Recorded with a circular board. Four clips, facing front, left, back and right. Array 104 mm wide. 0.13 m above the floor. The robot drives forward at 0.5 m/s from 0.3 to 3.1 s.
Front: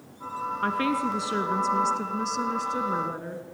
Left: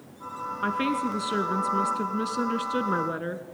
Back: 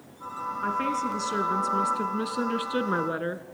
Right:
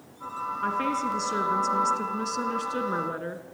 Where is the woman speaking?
30° left, 1.4 m; by 3.4 s 165° left, 1.5 m.